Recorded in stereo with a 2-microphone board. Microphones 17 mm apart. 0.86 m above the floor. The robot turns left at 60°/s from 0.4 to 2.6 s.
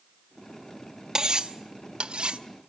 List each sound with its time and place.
1.1 s cutlery clinking: 40° right (ahead or behind), 0.7 m; by 2.4 s 65° right (ahead or behind), 0.7 m